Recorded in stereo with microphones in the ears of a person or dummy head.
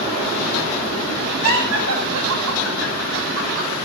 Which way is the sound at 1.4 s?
70° right (ahead or behind).